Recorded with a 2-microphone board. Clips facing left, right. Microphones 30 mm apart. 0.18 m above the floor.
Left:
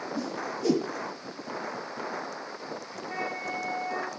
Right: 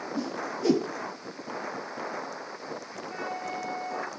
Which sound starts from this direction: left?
A flute, at 3.1 s.